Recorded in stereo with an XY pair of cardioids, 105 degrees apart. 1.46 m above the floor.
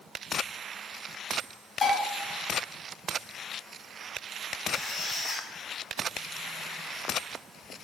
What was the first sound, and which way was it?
Dishes clattering, 50° left.